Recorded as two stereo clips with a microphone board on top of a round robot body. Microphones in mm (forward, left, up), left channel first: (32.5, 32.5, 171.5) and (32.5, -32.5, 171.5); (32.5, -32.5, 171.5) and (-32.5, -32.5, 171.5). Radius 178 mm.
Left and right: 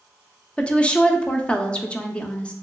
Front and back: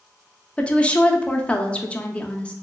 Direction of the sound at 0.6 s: 40° left.